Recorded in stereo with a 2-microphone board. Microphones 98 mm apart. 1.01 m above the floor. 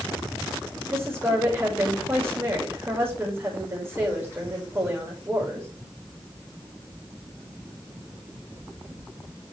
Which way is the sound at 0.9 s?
25° right (ahead or behind).